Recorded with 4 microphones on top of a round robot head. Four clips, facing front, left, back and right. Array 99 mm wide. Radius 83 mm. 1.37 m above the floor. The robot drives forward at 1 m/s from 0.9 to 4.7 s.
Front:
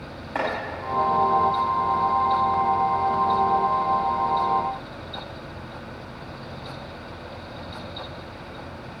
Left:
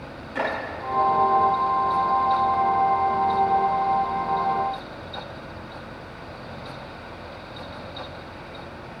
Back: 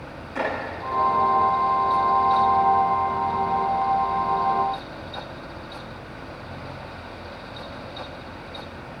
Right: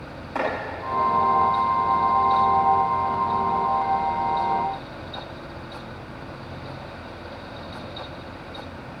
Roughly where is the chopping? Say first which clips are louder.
Right 1 dB, even; ahead right.